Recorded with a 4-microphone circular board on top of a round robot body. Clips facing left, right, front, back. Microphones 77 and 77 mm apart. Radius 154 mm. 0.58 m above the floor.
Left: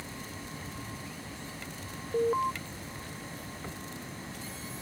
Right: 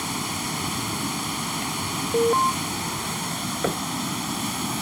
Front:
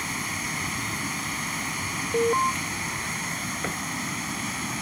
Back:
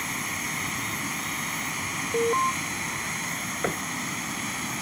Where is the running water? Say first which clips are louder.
Right 13 dB, front 1 dB; 90° right.